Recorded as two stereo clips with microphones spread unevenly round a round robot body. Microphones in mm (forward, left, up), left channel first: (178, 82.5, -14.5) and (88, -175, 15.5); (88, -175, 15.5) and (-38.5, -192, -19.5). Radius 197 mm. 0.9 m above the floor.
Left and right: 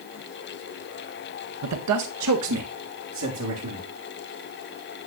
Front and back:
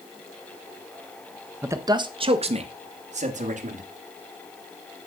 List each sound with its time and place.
1.6 s a man speaking: 115° right, 0.7 m; by 3.9 s 165° right, 1.8 m